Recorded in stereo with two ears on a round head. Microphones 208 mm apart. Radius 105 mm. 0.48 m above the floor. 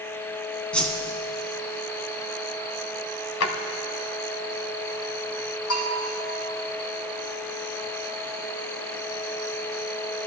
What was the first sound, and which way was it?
A whoosh, 5° left (ahead or behind).